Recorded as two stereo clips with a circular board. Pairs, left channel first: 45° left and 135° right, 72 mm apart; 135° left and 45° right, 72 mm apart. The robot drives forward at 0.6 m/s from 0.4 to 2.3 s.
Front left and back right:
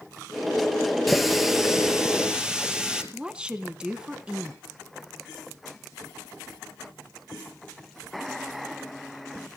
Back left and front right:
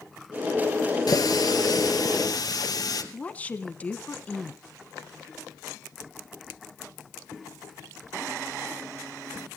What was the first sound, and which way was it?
A running tap, 135° left.